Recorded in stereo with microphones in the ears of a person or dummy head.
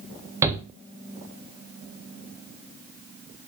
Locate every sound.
0.4 s a shout: 15° right (ahead or behind), 0.6 m